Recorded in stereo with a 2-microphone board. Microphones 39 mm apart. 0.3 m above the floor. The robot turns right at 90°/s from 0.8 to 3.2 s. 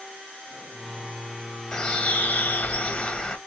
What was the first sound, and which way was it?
A bird, 20° left.